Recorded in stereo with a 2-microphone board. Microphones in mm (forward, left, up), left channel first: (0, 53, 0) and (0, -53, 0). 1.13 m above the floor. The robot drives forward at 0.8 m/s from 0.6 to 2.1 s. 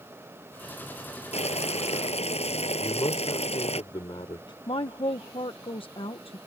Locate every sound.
1.3 s boiling: 80° left
2.8 s a man speaking: 50° left (ahead or behind)
4.7 s a woman speaking: 60° left (ahead or behind)